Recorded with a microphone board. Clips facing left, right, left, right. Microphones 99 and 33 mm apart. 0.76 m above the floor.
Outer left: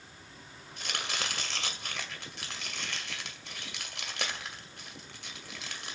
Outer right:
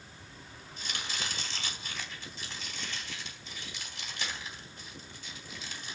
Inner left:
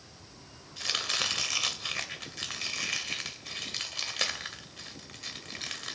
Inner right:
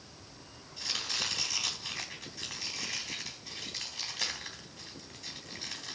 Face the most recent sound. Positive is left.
turn(degrees=70)  # may be behind; listen again after turning